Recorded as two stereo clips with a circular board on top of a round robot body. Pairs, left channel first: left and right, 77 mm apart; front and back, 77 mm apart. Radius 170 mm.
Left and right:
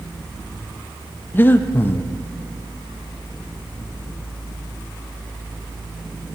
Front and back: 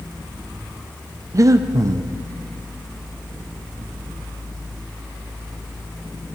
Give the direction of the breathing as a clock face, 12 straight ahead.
7 o'clock.